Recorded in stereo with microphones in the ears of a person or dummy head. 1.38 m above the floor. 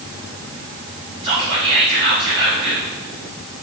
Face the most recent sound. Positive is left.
turn(degrees=-40)  # may be behind; listen again after turning